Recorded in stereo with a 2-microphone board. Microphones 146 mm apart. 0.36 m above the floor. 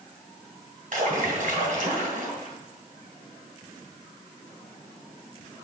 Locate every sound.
0.9 s a splash: 65° right (ahead or behind), 3 m